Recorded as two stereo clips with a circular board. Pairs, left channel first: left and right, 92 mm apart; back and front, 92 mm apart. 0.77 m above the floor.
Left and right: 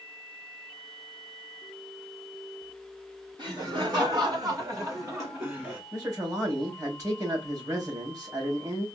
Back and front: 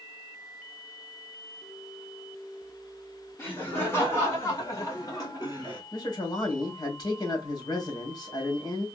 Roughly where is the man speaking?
Behind right.